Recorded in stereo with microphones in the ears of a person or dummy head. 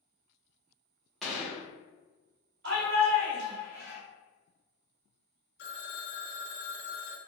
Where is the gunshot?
Centre (ahead or behind), 1.3 m.